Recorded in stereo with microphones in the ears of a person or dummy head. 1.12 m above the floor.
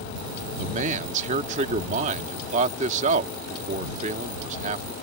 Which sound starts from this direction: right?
A man speaking, at 0.6 s.